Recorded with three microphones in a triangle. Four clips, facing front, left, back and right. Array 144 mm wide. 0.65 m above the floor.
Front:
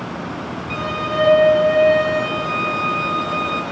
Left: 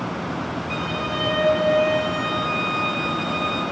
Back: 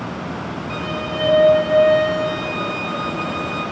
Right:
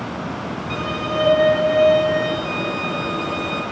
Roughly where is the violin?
Ahead right.